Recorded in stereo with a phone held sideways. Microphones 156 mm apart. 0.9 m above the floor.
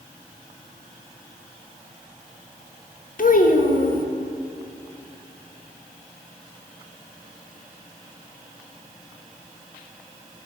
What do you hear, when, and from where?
3.2 s a child speaking: 60° left (ahead or behind), 0.7 m